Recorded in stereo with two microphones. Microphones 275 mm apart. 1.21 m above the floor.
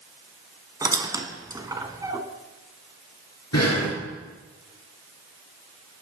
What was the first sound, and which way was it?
A squeak, 15° right (ahead or behind).